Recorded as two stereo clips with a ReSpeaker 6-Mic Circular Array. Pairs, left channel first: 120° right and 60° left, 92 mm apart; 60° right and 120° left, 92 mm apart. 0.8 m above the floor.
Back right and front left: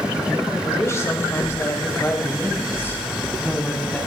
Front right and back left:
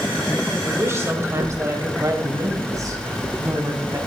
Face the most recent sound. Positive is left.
turn(degrees=170)